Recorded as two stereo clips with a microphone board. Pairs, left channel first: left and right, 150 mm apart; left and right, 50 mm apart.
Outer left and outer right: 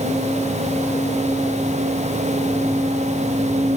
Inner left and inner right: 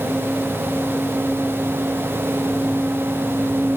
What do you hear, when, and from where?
Only background noise.